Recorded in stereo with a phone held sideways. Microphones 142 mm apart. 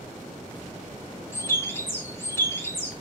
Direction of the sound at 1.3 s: 20° left (ahead or behind).